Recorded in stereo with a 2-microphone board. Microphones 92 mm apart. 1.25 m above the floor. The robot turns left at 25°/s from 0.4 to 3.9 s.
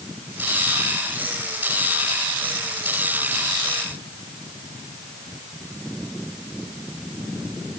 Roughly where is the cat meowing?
I don't hear a cat meowing.